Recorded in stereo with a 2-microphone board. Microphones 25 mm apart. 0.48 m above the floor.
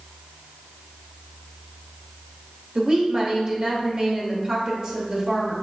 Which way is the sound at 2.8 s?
30° right (ahead or behind).